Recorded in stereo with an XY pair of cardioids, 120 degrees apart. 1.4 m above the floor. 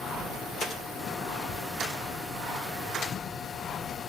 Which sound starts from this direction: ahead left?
A machine running, at 0.0 s.